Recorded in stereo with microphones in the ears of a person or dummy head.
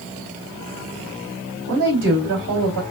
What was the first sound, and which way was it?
A woman speaking, 60° right (ahead or behind).